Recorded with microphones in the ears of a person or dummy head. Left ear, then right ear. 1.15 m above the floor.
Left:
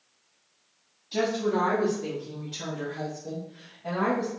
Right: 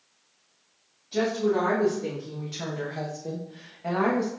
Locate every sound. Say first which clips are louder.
1.1 s a woman speaking: right 1 dB; 25° left (ahead or behind), 1.2 m; by 4.3 s 70° right (ahead or behind), 1.2 m